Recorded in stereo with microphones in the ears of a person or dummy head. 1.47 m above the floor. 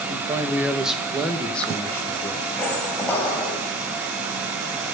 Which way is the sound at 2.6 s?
10° left (ahead or behind).